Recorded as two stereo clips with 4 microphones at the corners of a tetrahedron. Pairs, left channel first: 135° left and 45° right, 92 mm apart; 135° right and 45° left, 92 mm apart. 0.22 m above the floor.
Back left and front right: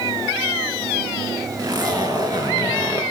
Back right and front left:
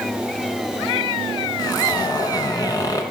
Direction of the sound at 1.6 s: 90° right.